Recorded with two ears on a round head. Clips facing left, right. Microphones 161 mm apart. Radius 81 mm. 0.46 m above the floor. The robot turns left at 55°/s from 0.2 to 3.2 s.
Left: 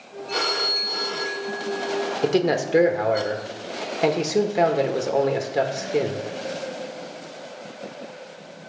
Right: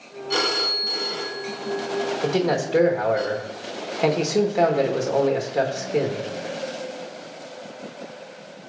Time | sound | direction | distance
0.3 | a phone ringing | 60° right (ahead or behind) | 2.5 m
2.2 | a man speaking | 60° left | 1.1 m